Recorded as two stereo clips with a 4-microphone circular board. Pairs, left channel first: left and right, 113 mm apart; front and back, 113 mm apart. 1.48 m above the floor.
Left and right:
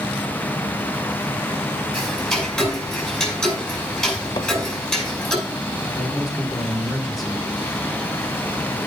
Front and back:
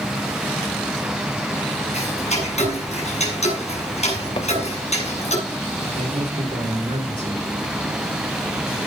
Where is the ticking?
Straight ahead, 5 m.